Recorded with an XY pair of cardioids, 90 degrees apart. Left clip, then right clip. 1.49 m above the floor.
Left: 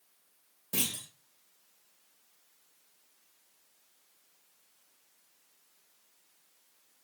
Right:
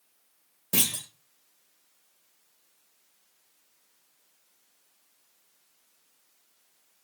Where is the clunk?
60° right, 2.5 m.